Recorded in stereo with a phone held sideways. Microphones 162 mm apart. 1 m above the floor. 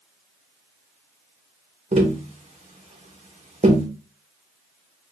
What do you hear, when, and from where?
1.9 s tapping: 45° right (ahead or behind), 0.9 m